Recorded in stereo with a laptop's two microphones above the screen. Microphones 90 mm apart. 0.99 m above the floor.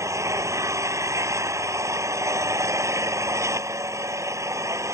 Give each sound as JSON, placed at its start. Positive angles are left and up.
{"t": 0.0, "sound": "an engine running", "side_deg": -35}